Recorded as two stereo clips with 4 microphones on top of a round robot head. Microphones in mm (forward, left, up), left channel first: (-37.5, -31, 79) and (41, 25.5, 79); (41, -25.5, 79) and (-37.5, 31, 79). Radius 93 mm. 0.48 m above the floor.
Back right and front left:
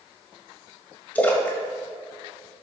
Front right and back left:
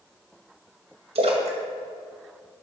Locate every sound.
1.1 s a splash: 140° left, 2 m